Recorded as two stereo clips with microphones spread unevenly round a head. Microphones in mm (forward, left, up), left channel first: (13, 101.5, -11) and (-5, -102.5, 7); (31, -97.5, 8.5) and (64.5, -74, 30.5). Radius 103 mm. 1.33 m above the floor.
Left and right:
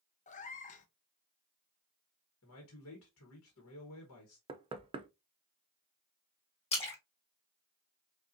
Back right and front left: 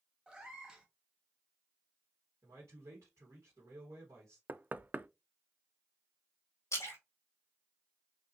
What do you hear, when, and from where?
0.3 s a cat meowing: 40° left, 0.6 m
2.4 s a man speaking: 60° left, 1.3 m
4.5 s knocking: 25° right, 0.5 m
6.7 s a splash: 150° left, 2.0 m